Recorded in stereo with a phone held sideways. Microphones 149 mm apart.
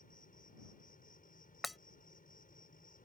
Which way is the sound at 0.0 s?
65° left (ahead or behind).